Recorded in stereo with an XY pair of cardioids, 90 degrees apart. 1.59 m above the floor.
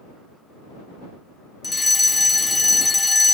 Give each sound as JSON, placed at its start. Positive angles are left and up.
{"t": 1.6, "sound": "a fire alarm", "azimuth_deg": 20}